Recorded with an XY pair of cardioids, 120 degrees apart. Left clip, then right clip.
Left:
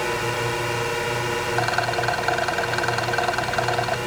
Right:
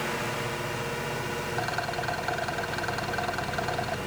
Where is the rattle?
45° left.